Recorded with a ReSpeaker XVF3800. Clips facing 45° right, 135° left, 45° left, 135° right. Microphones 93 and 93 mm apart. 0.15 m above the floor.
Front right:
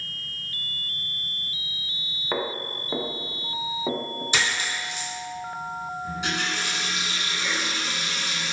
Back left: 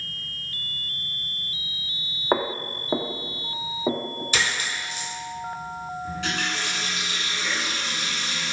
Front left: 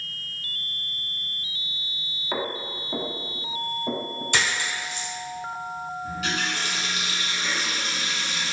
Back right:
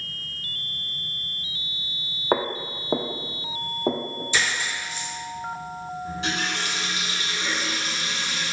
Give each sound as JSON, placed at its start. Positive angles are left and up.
{"t": 2.3, "sound": "footsteps", "azimuth_deg": -170, "distance_m": 0.6}
{"t": 4.3, "sound": "a dropped coin", "azimuth_deg": 20, "distance_m": 1.6}
{"t": 6.0, "sound": "a running tap", "azimuth_deg": -105, "distance_m": 1.1}